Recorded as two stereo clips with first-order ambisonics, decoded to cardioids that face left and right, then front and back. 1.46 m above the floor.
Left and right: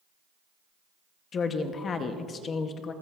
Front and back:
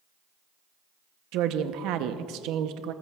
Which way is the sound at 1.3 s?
150° left.